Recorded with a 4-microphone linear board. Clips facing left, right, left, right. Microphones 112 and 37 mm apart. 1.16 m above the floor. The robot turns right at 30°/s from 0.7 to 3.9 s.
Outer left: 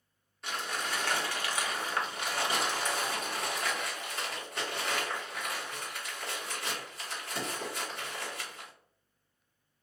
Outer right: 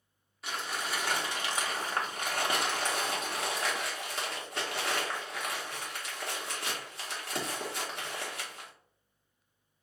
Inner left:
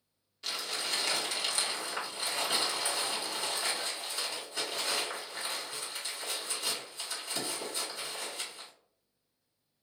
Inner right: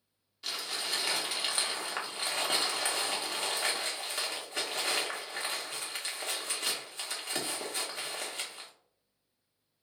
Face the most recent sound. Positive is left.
turn(degrees=-80)